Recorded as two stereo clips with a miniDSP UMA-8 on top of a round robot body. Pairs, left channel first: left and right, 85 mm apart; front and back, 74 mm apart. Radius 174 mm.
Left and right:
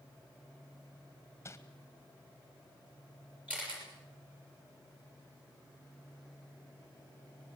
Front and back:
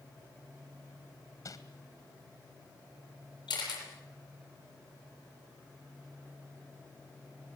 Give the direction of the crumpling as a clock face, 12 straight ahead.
11 o'clock.